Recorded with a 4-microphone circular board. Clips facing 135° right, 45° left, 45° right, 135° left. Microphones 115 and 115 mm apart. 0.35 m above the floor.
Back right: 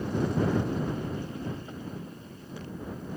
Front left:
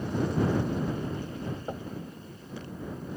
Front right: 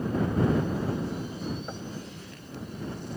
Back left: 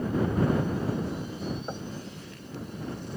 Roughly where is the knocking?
Ahead left.